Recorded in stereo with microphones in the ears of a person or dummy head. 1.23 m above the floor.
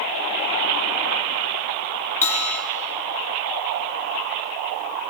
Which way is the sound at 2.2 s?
15° left (ahead or behind).